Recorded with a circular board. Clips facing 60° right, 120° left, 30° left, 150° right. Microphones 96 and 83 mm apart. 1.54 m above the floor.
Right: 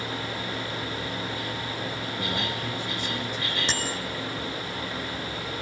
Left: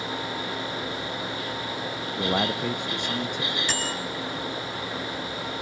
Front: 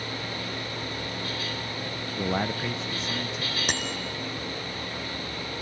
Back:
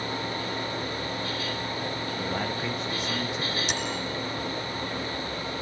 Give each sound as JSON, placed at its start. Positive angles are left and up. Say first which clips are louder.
{"t": 2.2, "sound": "a man speaking", "louder": "left 8 dB, front 5 dB", "azimuth_deg": 70, "distance_m": 0.7}
{"t": 3.7, "sound": "a bicycle bell", "louder": "left 1 dB, back 1 dB", "azimuth_deg": 5, "distance_m": 4.5}